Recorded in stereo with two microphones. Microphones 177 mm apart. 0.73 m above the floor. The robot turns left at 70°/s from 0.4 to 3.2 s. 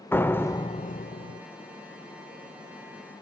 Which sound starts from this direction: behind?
A door slam, at 0.1 s.